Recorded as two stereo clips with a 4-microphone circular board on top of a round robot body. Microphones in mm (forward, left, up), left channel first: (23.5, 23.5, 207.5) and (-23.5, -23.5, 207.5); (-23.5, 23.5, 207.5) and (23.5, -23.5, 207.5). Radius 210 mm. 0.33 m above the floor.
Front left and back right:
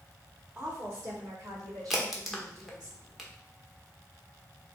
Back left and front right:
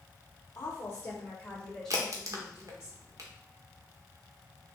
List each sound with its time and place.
0.6 s a woman speaking: 160° left, 1.8 m; by 2.9 s 115° right, 3 m
1.9 s a crack: 50° right, 1.2 m